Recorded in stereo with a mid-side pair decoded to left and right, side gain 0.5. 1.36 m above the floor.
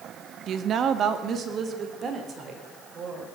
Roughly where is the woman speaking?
Ahead right.